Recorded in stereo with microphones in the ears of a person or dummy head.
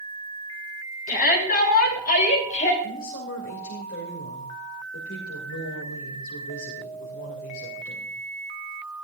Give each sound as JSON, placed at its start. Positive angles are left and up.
{"t": 1.1, "sound": "a shout", "side_deg": 50, "distance_m": 4.5}
{"t": 2.8, "sound": "a woman speaking", "side_deg": 60, "distance_m": 2.5}